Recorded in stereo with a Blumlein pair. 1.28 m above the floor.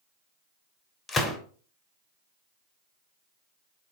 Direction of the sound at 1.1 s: 15° left.